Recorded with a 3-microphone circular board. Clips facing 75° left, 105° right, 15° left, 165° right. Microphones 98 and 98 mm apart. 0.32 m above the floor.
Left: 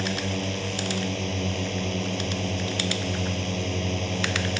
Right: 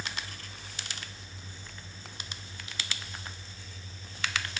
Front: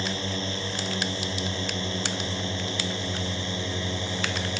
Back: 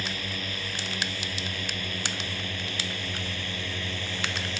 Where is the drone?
80° left; by 4.6 s 85° left.